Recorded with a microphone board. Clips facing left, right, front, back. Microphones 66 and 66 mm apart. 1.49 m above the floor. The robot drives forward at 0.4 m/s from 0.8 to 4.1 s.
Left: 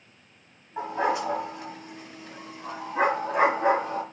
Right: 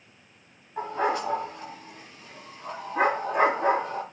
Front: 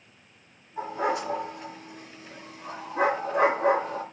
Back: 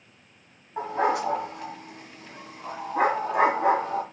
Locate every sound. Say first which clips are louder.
0.8 s a dog barking: even, back 3 dB; 170° left, 4 m; by 4.0 s 175° left, 5.5 m